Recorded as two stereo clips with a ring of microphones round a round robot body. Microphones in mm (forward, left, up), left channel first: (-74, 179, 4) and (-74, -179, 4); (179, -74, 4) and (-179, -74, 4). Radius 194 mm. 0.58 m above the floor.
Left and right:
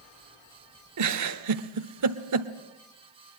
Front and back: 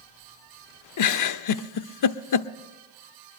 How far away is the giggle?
About 0.9 m.